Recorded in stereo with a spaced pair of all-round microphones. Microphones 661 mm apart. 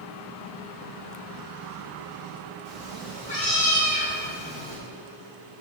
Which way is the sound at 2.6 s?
70° left (ahead or behind).